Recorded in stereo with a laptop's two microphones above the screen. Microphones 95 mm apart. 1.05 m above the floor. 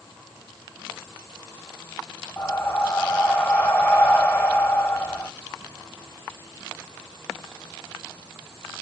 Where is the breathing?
15° left (ahead or behind), 0.7 m.